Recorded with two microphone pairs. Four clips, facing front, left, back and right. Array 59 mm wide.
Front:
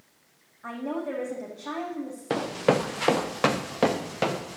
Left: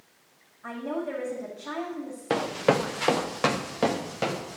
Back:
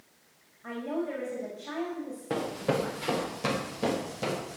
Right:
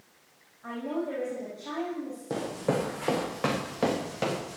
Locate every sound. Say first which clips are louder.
0.6 s a woman speaking: left 1 dB, front 1 dB; 5° right, 4 m
2.3 s running footsteps: left 6 dB, front 6 dB; 65° left, 1.2 m; by 4.6 s 5° right, 2.5 m